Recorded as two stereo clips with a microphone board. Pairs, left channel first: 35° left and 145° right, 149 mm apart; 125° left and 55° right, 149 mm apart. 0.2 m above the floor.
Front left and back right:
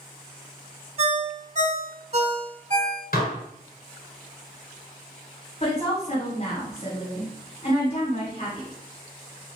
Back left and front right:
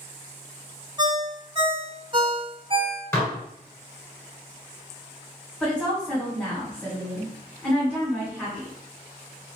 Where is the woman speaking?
45° left, 2.0 m.